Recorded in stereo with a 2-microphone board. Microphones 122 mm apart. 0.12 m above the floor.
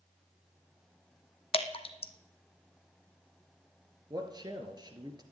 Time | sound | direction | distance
1.5 | dripping | 50° left (ahead or behind) | 0.9 m
4.1 | a man speaking | 35° right (ahead or behind) | 1.8 m